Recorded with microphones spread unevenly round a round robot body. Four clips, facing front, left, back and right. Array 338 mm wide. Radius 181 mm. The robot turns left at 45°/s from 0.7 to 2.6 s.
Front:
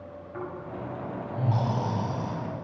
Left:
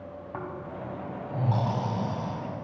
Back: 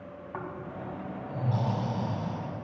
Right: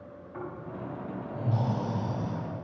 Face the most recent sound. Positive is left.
turn(degrees=20)